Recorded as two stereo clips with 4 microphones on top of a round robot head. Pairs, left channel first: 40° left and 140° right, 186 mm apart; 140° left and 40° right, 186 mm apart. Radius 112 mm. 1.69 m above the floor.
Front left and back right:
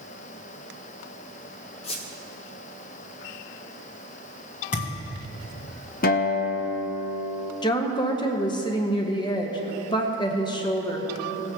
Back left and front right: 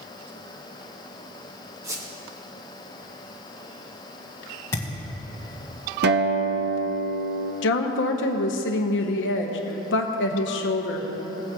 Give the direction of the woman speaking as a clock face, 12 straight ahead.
8 o'clock.